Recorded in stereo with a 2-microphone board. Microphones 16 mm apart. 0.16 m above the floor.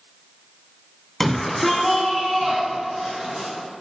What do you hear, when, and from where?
1.2 s a shout: 20° left (ahead or behind), 1.2 m; by 3.5 s 35° right (ahead or behind), 2.5 m